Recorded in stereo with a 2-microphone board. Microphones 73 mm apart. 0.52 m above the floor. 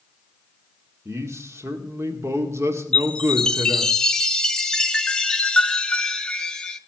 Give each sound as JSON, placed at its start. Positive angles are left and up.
{"t": 1.1, "sound": "a man speaking", "side_deg": -40, "distance_m": 1.6}
{"t": 2.9, "sound": "a chime", "side_deg": 10, "distance_m": 0.7}